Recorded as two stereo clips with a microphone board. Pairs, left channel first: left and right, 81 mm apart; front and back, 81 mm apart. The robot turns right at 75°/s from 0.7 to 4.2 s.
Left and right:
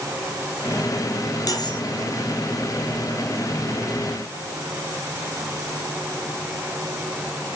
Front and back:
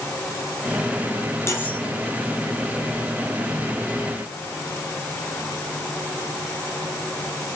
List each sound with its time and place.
1.5 s cutlery clinking: 55° left, 5.5 m; by 1.8 s 80° left, 5.5 m